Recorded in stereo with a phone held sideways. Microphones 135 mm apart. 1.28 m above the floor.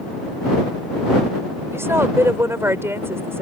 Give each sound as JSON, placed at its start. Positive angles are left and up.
{"t": 1.7, "sound": "a woman speaking", "side_deg": -20}